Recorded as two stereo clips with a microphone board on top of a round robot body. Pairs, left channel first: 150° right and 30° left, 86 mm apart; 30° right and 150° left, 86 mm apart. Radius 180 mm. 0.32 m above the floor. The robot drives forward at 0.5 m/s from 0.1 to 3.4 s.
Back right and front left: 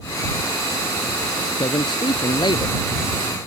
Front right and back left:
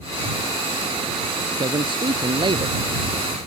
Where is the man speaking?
175° left; by 2.8 s straight behind.